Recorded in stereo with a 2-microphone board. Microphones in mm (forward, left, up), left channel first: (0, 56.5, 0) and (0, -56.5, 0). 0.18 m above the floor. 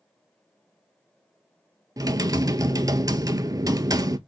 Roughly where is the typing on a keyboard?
Right.